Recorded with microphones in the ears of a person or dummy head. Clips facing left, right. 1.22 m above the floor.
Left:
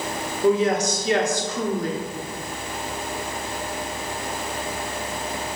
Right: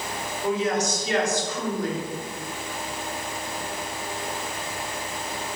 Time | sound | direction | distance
0.4 | a woman speaking | 35° left (ahead or behind) | 1.3 m